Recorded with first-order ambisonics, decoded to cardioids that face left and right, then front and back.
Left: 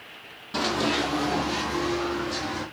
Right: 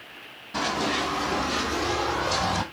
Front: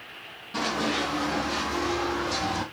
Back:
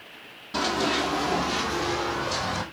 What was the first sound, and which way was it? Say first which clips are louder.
Running footsteps: left 1 dB, back 2 dB; 130° left.